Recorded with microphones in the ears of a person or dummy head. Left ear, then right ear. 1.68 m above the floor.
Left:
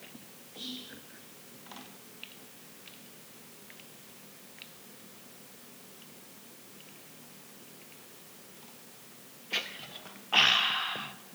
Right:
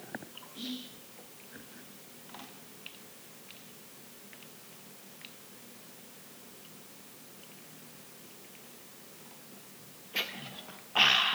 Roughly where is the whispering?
Right.